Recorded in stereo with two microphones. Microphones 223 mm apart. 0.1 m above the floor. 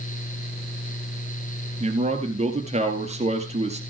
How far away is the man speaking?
About 2 m.